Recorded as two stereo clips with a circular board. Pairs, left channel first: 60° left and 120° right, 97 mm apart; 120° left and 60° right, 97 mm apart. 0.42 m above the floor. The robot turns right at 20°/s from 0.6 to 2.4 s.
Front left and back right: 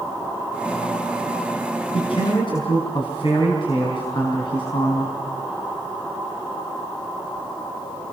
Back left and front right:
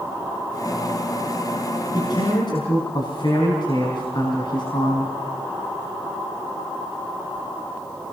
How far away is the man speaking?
About 5 m.